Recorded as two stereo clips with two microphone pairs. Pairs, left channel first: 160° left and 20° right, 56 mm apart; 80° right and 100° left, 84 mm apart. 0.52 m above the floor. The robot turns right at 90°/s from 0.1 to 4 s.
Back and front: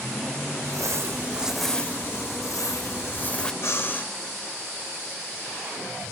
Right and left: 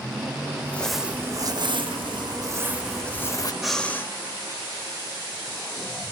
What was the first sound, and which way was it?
Crumpling, 20° right.